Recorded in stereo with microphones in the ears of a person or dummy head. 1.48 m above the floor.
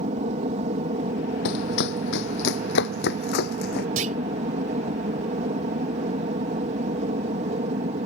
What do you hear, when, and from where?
0.0 s an aircraft: 35° right (ahead or behind)
1.4 s running footsteps: 55° left (ahead or behind)
4.0 s a clunk: 40° right (ahead or behind)